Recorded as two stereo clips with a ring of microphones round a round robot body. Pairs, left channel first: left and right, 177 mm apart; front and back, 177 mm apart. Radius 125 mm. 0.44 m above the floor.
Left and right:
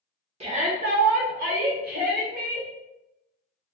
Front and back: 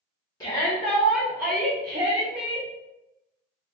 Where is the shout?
60° right, 1.0 m; by 2.7 s 120° right, 1.7 m.